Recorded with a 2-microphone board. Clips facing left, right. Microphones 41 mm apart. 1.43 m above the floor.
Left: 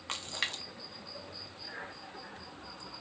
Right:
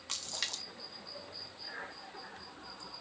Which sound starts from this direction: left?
A splash, at 0.1 s.